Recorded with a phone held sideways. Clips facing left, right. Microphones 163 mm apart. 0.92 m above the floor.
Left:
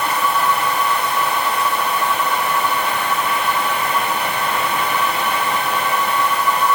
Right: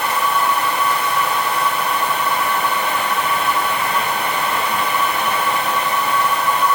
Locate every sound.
Only background noise.